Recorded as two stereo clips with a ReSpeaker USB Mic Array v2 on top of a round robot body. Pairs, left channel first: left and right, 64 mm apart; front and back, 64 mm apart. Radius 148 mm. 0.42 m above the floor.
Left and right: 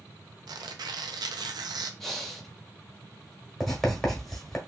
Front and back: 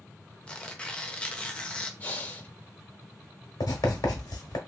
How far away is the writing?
About 1.2 m.